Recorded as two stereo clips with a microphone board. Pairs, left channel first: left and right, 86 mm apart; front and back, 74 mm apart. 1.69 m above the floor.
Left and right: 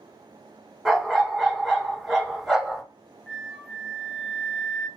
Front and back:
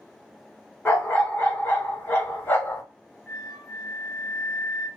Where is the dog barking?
5° right, 1.3 m.